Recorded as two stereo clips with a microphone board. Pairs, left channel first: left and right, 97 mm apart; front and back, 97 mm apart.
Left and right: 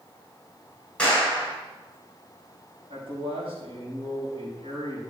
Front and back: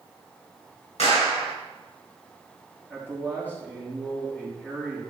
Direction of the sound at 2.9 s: 75° right.